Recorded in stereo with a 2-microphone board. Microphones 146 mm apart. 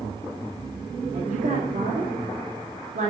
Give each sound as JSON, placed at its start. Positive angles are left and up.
{"t": 1.1, "sound": "a woman speaking", "side_deg": -85, "distance_m": 1.9}